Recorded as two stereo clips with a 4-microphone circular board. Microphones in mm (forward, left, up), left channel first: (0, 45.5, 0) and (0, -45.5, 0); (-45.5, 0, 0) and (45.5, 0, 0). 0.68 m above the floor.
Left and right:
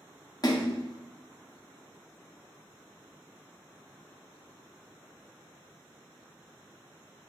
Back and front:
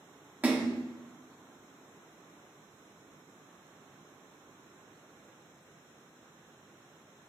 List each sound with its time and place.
0.4 s a splash: 65° left, 0.6 m